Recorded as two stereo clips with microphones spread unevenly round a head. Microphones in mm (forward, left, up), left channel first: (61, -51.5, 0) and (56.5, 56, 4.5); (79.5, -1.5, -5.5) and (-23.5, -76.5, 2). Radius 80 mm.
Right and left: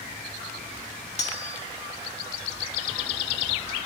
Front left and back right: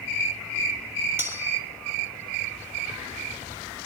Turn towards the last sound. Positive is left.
turn(degrees=-75)